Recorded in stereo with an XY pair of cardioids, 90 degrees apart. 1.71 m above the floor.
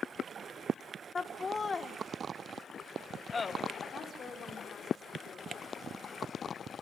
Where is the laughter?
35° left, 1.9 m.